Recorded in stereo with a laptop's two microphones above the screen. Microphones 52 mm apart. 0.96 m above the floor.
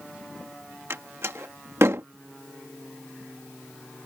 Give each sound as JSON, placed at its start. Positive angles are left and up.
{"t": 0.9, "sound": "a door slam", "side_deg": -65}